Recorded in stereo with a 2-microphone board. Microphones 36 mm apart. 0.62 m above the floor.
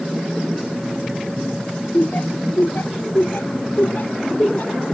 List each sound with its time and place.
1.9 s laughter: 75° left (ahead or behind); by 4.8 s 55° left (ahead or behind)